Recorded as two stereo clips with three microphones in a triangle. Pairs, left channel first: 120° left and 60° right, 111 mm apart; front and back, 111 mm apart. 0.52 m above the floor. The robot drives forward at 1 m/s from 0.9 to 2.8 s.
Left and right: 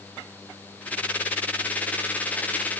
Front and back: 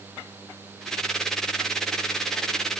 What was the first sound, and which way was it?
Only background noise.